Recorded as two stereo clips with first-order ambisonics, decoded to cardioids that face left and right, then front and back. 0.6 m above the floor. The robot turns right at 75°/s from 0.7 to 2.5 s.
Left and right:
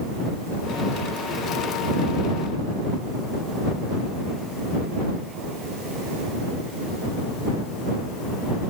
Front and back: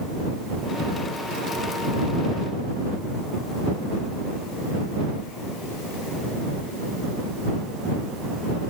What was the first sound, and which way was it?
Only background noise.